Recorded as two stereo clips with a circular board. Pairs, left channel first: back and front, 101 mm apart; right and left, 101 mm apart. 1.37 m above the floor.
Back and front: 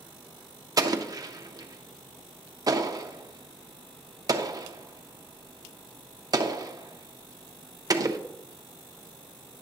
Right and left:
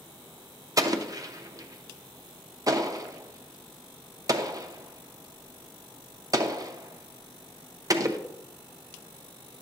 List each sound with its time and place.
0.8 s an explosion: 45° left, 0.6 m